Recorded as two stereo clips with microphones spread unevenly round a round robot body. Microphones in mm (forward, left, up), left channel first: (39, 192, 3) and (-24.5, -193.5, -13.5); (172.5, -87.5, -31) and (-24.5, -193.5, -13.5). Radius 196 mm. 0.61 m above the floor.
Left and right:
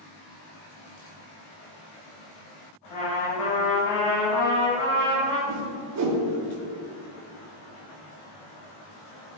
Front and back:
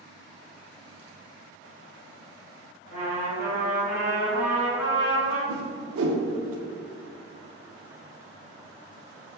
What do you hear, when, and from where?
2.9 s a trumpet: 85° left, 1.8 m
5.5 s a whoosh: 145° right, 0.6 m